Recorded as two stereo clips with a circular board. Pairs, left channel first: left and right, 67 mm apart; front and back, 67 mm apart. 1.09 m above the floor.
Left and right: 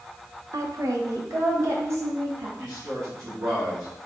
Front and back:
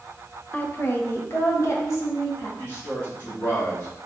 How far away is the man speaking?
About 1.6 m.